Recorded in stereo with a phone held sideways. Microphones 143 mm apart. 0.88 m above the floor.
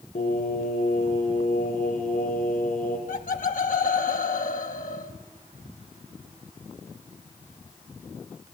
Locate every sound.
0.1 s singing: 80° left, 5.5 m
3.1 s laughter: 70° left (ahead or behind), 1.0 m